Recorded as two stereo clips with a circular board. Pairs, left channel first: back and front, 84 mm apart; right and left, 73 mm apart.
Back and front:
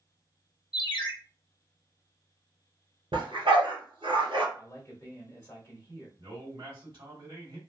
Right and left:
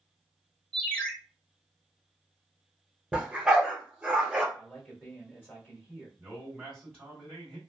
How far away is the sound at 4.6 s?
About 1.3 m.